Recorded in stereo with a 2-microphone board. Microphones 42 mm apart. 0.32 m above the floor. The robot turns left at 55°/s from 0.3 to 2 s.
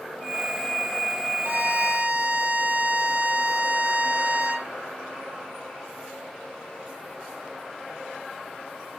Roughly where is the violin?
Right.